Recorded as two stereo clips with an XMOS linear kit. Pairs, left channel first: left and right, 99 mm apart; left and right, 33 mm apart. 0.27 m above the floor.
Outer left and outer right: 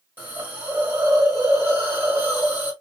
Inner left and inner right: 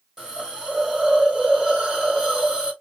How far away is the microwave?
I don't hear a microwave.